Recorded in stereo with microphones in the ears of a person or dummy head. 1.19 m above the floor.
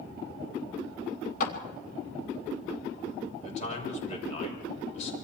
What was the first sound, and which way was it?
A clap, 55° left (ahead or behind).